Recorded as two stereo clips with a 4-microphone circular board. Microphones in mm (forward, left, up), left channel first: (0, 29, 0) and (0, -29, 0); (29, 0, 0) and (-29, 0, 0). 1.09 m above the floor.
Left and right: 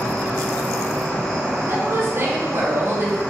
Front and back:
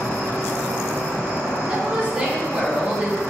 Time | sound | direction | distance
0.0 | an insect | 165° left | 1.2 m
1.7 | a woman speaking | 115° right | 0.7 m